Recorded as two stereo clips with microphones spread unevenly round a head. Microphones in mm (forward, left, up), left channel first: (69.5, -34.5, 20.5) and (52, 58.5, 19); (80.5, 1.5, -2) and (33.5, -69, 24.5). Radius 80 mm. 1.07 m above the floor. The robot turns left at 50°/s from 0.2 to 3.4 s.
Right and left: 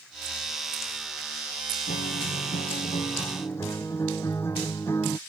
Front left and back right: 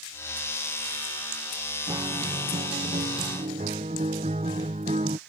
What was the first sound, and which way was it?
A guitar, 80° right.